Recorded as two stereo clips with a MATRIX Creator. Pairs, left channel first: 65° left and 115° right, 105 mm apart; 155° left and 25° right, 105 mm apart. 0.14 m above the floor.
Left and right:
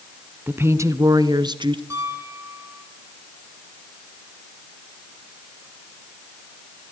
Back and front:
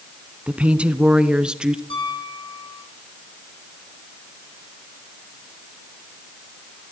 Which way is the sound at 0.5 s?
80° right.